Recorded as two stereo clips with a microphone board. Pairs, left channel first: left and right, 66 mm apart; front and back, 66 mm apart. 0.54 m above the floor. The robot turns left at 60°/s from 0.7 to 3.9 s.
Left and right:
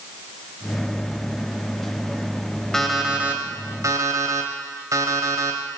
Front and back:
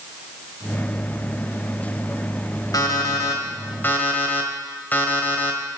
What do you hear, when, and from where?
2.7 s an alarm clock: 5° left, 1.7 m; by 5.8 s 60° right, 1.7 m